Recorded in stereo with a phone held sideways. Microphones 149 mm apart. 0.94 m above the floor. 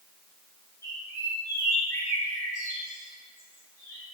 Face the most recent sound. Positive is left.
turn(degrees=20)  # may be behind; listen again after turning